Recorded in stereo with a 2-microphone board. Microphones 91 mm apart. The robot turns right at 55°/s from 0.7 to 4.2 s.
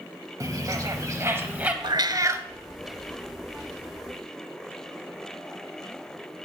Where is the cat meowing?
60° right, 0.6 m; by 2.5 s 25° right, 0.6 m.